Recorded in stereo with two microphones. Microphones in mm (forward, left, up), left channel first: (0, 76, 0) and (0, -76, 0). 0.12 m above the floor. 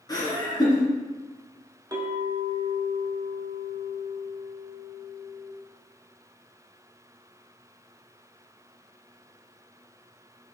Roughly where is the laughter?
Left.